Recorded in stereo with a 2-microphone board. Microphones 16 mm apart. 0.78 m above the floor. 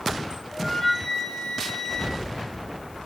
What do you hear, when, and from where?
0.5 s a flute: 35° left (ahead or behind), 6 m